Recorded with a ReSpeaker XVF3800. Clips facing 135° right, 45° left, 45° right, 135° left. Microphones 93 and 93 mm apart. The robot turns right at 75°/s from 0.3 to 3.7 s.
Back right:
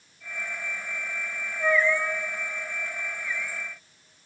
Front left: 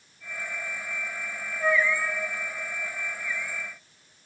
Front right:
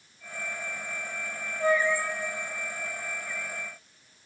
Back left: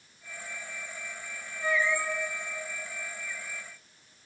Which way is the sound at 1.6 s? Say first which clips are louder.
Back right 1 dB, front right 4 dB; 55° right.